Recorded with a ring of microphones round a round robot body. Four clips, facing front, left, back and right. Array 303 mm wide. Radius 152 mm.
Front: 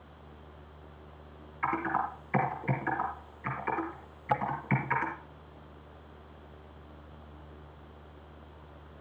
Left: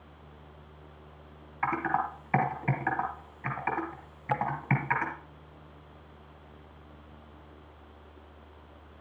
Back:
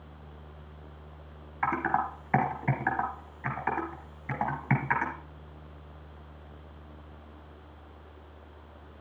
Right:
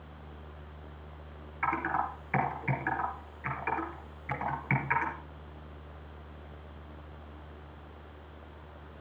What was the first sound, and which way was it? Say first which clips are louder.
Typing on a keyboard: left 2 dB, back 2 dB; 160° left.